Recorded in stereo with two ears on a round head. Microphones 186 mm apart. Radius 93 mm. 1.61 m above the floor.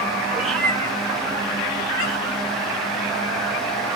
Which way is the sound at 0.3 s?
5° right (ahead or behind).